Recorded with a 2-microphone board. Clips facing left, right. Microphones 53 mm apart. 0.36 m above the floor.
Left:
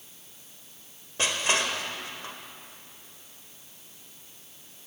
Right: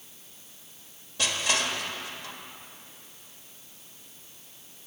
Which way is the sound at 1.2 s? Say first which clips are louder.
Left 1 dB; 35° left (ahead or behind).